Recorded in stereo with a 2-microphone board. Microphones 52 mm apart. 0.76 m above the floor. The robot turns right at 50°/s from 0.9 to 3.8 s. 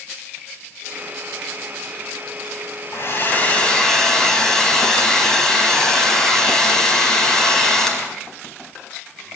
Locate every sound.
2.9 s a hair dryer: 125° left, 4 m; by 8.1 s 170° left, 4 m